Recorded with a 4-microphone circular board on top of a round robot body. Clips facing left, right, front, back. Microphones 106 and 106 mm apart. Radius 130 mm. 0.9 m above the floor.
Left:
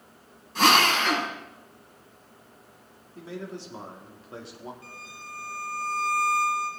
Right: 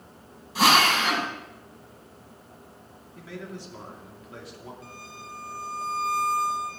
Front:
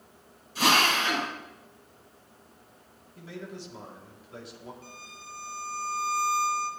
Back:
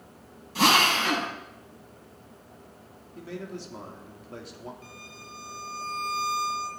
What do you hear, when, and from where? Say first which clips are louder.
0.6 s a drill: even, back 2 dB; 170° right, 5.5 m
3.1 s a man speaking: left 2 dB, back 3 dB; 150° left, 2 m
4.8 s a violin: right 2 dB, back 1 dB; 150° right, 2.5 m